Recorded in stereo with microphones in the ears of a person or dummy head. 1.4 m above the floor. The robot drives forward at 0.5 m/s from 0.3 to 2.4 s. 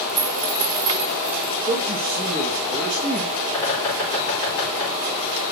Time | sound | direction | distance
0.1 | a dropped coin | 40° right (ahead or behind) | 2.5 m
1.7 | a man speaking | 25° right (ahead or behind) | 1.2 m
3.5 | a bird | 15° left (ahead or behind) | 5 m